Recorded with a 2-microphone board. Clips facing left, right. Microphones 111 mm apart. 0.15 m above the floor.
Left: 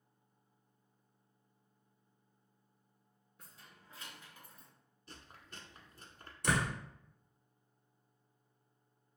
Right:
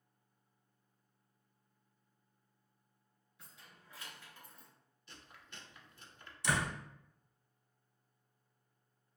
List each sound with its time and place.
3.4 s keys jangling: 45° left (ahead or behind), 1.8 m; by 4.7 s centre (ahead or behind), 1.5 m
5.1 s chewing: 40° left (ahead or behind), 0.9 m
6.4 s a door slam: 50° left (ahead or behind), 1.3 m